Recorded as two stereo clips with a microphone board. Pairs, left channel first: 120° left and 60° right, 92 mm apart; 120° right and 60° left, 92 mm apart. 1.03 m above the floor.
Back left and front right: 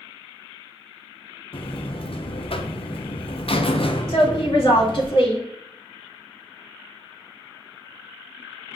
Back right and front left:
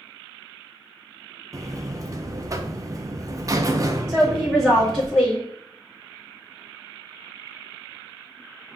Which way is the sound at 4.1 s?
145° left.